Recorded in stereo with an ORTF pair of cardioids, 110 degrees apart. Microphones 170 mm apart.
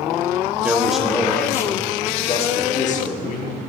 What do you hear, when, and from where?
0.6 s a man speaking: 10° right, 1.4 m; by 3.6 s 55° left, 1.9 m